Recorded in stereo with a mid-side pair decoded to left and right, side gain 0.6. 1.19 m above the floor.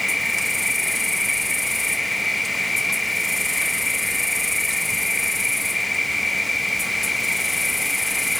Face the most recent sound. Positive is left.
turn(degrees=10)